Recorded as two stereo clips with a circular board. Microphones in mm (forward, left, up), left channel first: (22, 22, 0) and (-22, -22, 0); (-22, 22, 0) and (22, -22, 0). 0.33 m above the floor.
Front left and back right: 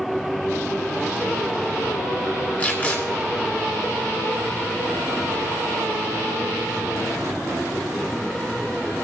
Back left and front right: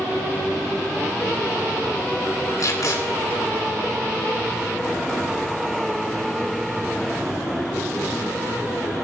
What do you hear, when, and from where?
2.6 s tape being pulled: 110° left, 3 m